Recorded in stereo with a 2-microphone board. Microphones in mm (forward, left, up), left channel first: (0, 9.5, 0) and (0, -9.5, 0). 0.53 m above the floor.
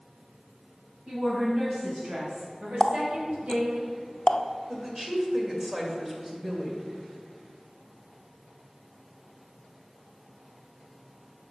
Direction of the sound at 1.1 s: 55° right (ahead or behind).